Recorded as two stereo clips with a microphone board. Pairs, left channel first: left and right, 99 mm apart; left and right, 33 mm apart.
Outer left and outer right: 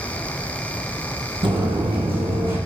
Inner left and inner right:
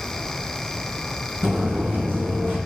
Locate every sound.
1.4 s footsteps: 60° right (ahead or behind), 0.9 m; by 2.6 s 70° right (ahead or behind), 1.4 m